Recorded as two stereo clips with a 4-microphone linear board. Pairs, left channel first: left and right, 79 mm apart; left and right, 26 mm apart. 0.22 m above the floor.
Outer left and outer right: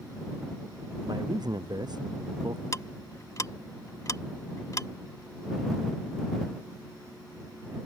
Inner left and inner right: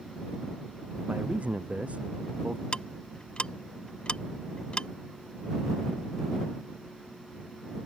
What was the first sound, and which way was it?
A man speaking, 60° right (ahead or behind).